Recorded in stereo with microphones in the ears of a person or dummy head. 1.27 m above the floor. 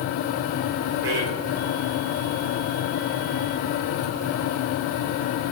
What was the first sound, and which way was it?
A man speaking, 45° right (ahead or behind).